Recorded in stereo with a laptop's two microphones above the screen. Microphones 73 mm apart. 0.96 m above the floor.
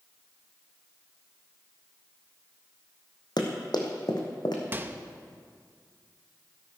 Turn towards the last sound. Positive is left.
turn(degrees=-25)  # may be behind; listen again after turning